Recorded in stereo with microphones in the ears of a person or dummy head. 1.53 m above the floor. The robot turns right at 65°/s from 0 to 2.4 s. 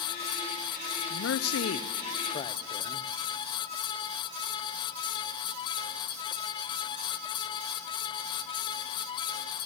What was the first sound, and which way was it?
A man speaking, 65° left.